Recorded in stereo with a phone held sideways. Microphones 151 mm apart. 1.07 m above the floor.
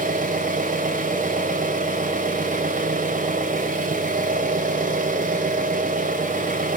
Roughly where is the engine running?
Right.